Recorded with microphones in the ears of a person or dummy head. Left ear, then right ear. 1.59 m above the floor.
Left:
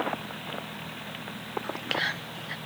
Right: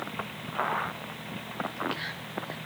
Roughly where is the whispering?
Left.